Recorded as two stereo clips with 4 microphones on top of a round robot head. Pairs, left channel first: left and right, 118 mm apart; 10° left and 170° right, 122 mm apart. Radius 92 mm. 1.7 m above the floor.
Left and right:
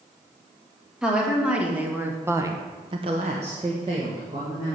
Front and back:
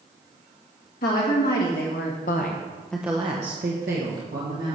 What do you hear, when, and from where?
1.0 s a woman speaking: 5° right, 2 m; by 4.8 s 165° right, 2.0 m